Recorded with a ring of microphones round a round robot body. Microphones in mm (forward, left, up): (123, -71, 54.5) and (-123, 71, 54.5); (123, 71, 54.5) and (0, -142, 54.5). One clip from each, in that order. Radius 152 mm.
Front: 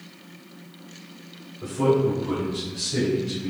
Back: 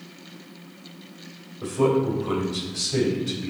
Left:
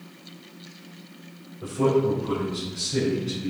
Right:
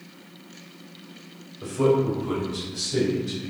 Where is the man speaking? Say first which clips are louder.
Even, right 1 dB; 170° right, 3 m; by 3.5 s 170° left, 4.5 m.